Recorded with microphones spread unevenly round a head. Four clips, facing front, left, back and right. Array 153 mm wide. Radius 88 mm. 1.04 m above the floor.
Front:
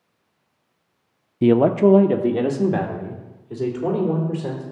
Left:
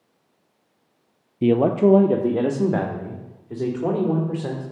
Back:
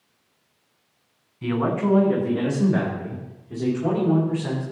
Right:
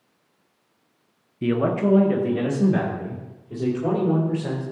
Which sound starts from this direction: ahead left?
A man speaking, at 1.4 s.